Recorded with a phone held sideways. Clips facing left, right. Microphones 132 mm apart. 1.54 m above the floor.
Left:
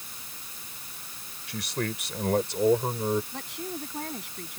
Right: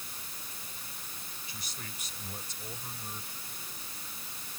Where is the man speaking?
70° left (ahead or behind); by 3.2 s 85° left.